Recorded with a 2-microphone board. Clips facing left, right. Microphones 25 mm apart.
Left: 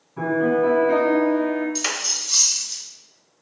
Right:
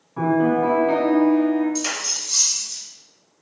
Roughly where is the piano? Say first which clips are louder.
Right 1 dB; right.